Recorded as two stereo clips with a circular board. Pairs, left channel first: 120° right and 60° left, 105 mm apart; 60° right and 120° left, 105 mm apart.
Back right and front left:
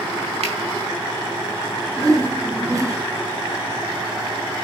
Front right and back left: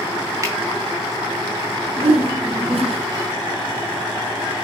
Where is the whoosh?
120° left, 1.7 m.